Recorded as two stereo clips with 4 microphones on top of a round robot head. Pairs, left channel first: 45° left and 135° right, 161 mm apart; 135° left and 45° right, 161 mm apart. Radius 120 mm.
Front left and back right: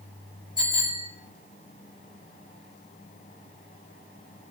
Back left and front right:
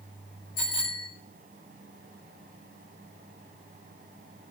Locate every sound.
0.6 s a bicycle bell: 110° left, 8 m